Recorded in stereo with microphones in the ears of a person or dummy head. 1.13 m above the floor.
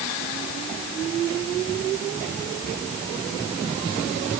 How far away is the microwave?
I don't hear a microwave.